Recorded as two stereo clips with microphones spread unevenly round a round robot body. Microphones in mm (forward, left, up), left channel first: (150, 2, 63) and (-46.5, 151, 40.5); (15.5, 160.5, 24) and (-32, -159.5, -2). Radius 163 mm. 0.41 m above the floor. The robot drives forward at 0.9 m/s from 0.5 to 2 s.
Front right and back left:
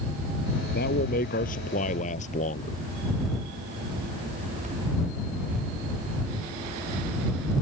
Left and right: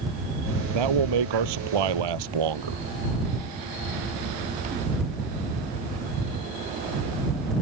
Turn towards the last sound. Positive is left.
turn(degrees=-105)